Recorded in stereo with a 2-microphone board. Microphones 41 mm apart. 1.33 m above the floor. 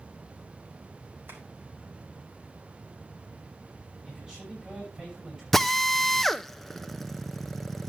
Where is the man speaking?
20° right (ahead or behind), 10 m.